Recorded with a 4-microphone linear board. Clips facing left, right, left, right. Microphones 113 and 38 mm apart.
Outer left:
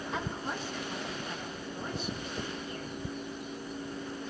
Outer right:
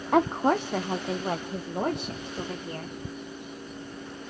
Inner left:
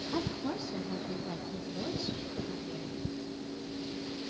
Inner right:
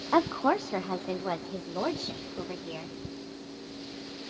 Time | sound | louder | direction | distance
0.1 | a woman speaking | outer right 16 dB, inner right 12 dB | 60° right (ahead or behind) | 0.5 m